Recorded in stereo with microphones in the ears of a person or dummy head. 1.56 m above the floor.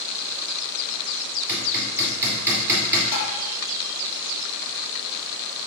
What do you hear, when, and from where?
1.5 s hammering: 15° right (ahead or behind), 2 m
3.1 s tapping: 75° left (ahead or behind), 2.5 m